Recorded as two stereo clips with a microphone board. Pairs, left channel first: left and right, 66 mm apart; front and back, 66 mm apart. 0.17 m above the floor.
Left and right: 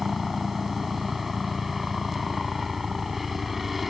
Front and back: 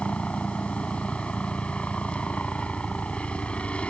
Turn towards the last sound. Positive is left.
turn(degrees=-10)